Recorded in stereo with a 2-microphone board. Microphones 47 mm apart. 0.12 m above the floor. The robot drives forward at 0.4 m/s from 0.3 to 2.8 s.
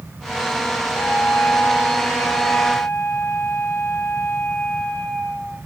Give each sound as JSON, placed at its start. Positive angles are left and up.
{"t": 0.9, "sound": "a flute", "side_deg": 50, "distance_m": 9.5}